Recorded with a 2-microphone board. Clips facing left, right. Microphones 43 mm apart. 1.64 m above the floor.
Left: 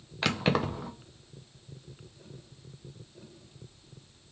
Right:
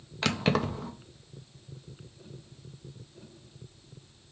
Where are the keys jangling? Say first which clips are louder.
Even; 5° left (ahead or behind), 0.5 m.